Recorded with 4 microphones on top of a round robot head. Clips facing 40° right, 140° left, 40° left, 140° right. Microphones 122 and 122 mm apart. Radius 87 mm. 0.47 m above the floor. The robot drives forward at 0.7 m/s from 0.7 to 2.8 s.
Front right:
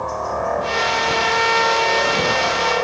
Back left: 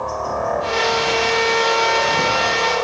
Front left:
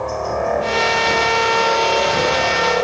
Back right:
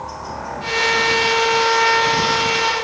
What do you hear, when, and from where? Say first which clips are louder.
0.0 s a helicopter: even, front left 9 dB; 50° left; by 2.8 s 40° left